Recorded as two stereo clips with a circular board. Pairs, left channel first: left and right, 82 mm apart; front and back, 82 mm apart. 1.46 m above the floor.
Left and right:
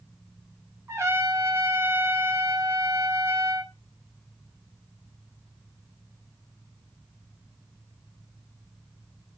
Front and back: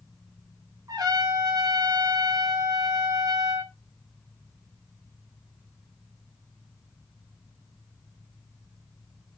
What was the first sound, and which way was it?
A trumpet, 145° right.